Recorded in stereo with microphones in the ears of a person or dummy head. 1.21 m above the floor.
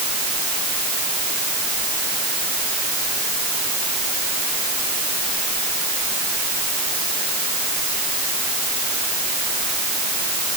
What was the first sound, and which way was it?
Only background noise.